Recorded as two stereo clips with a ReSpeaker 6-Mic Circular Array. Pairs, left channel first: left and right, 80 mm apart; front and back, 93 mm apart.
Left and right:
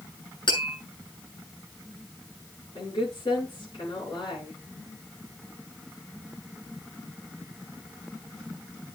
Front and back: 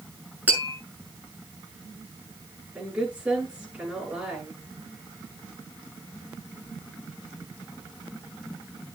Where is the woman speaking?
105° left, 9.5 m.